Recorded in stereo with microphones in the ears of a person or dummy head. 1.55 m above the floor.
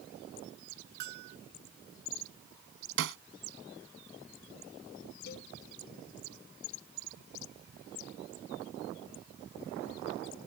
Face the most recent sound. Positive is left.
turn(degrees=65)  # may be behind; listen again after turning